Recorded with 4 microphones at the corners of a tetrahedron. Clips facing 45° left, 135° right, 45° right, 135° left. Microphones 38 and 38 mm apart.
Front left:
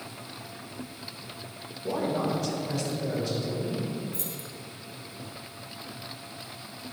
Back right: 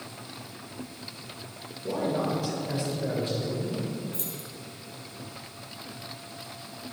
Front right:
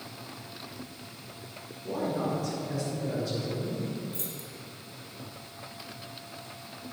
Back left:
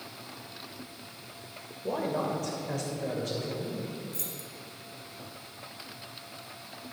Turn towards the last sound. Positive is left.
turn(degrees=-100)